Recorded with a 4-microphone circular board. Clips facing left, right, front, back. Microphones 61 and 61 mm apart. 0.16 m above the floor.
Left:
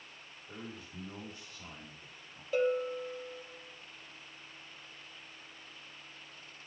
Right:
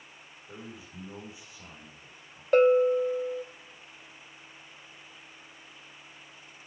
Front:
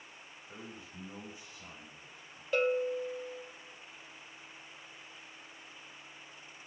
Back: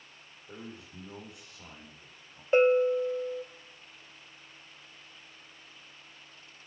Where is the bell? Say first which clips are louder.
Right 11 dB, back 8 dB; 120° right, 0.6 m.